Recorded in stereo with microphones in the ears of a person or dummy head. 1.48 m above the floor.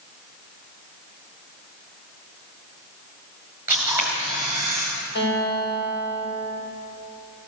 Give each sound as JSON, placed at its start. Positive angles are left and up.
{"t": 3.7, "sound": "a camera shutter", "side_deg": -10, "distance_m": 4.5}
{"t": 5.2, "sound": "a guitar", "side_deg": 65, "distance_m": 7.0}